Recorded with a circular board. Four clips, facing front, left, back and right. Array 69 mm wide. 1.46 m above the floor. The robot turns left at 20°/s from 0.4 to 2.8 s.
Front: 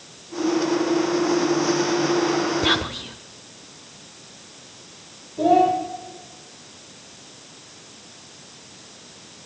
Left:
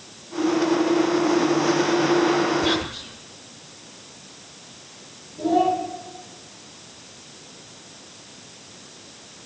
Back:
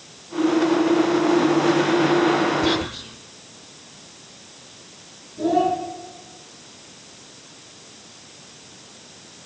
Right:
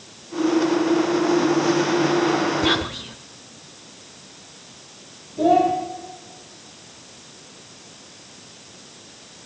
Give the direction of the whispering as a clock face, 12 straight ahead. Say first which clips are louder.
Right 2 dB, back 1 dB; 1 o'clock.